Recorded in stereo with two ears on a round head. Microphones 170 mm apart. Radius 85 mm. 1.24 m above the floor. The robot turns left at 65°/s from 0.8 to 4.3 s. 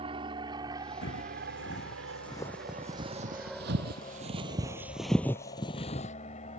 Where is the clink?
No clink in this recording.